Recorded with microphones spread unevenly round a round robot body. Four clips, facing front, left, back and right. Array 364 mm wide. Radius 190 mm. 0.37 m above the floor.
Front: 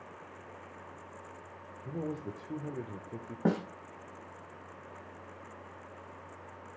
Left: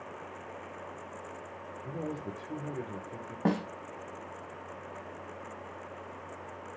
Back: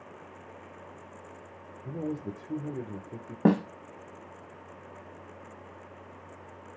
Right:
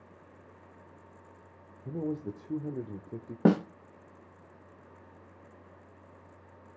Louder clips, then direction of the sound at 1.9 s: Right 4 dB, back 3 dB; 150° right.